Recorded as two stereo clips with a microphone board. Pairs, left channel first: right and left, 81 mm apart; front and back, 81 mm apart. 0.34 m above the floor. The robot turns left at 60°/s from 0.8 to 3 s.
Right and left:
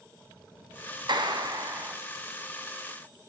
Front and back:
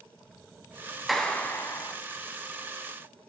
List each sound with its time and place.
1.1 s a clap: 90° left, 1.7 m; by 2.0 s 40° left, 1.7 m